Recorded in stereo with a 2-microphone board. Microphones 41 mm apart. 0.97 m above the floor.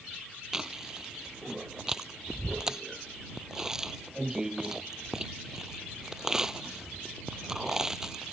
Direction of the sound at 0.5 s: 15° right (ahead or behind).